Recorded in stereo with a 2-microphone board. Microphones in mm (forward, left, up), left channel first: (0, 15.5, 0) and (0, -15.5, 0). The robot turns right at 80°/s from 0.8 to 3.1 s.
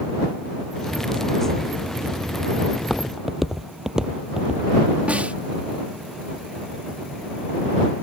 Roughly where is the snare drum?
Right.